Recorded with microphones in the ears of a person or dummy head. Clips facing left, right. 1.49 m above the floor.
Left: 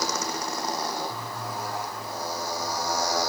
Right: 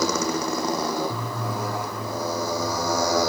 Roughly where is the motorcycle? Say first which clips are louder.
Right 7 dB; right.